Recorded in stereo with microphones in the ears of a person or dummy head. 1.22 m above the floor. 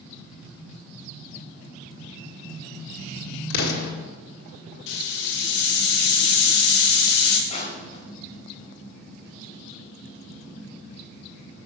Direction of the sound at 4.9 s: 65° left (ahead or behind).